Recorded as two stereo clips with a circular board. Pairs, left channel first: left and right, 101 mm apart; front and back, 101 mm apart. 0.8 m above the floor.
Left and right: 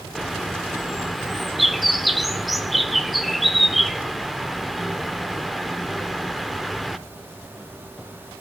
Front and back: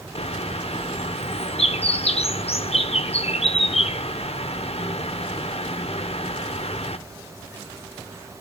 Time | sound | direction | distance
0.1 | a bird | straight ahead | 0.8 m